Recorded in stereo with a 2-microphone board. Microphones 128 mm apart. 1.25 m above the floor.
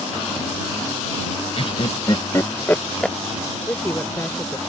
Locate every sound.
1.6 s laughter: 50° left (ahead or behind); by 3.2 s centre (ahead or behind)
3.7 s a woman speaking: 20° left (ahead or behind)